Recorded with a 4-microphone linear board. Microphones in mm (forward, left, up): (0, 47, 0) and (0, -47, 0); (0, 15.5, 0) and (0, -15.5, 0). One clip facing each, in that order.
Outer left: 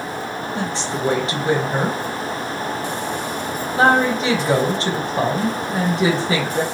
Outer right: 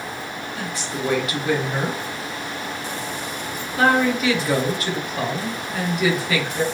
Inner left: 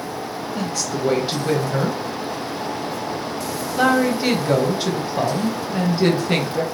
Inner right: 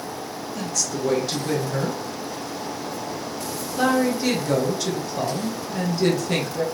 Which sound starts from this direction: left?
A woman speaking, at 0.6 s.